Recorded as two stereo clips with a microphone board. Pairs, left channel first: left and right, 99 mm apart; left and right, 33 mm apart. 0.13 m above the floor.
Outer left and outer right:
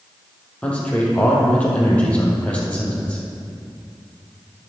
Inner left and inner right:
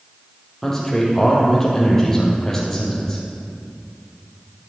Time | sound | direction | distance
0.6 | a man speaking | 15° left (ahead or behind) | 4 m